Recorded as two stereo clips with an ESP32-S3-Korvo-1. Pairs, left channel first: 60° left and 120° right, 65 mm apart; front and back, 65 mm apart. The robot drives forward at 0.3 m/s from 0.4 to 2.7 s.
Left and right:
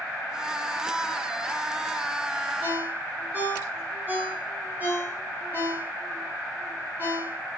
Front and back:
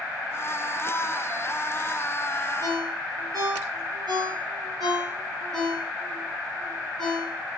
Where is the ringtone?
175° left, 4.5 m.